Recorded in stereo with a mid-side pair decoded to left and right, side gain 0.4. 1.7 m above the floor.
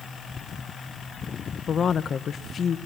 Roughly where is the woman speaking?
Ahead left.